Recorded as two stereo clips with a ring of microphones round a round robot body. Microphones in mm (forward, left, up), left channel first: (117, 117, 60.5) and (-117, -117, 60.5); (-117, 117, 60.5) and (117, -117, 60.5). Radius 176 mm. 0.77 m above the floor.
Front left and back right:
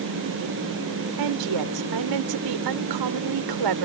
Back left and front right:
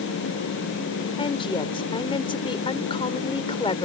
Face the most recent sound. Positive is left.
turn(degrees=-150)